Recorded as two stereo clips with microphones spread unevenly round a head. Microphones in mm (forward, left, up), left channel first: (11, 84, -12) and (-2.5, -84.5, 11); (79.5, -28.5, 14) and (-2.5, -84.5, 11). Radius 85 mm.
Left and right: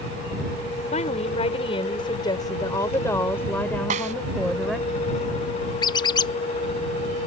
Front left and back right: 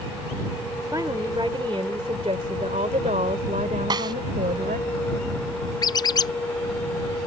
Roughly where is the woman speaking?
Behind left.